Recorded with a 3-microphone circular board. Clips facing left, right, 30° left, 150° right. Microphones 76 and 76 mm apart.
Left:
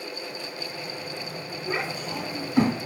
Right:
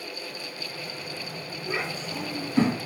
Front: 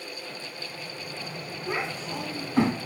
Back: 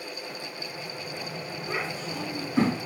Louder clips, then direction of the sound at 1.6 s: Left 2 dB, front 2 dB; 45° left.